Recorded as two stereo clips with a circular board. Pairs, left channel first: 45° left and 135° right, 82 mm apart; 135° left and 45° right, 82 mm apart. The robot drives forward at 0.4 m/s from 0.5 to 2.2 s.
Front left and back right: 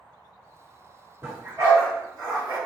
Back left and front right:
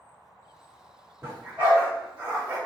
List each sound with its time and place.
1.2 s a dog barking: 85° right, 1.7 m; by 2.6 s 100° right, 1.7 m